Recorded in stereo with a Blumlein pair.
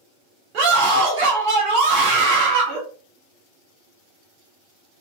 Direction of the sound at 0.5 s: 40° right.